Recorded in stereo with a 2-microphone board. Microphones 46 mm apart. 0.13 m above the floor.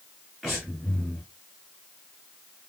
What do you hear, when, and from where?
0.4 s breathing: 5° right (ahead or behind), 1.9 m